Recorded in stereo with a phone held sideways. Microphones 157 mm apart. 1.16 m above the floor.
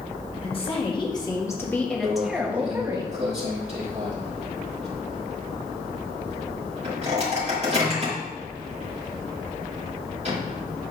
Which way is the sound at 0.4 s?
40° left (ahead or behind).